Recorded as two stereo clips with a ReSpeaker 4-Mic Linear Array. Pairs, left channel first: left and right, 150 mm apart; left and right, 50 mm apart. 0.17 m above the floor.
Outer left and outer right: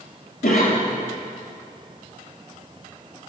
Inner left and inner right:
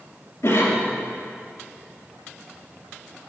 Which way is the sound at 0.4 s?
70° left (ahead or behind).